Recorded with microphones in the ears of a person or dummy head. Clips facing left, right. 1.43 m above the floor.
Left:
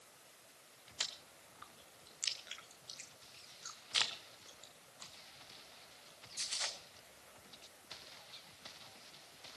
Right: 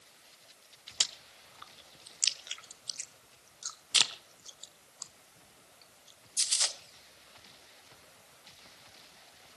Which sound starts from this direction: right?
Chewing, at 1.0 s.